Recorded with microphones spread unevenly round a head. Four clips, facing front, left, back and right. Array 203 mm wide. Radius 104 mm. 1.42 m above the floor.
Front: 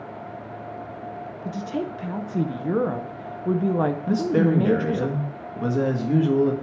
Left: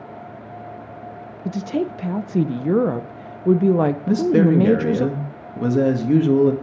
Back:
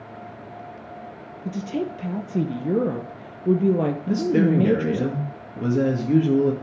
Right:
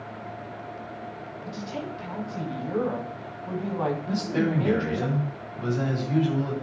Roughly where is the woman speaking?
Behind left.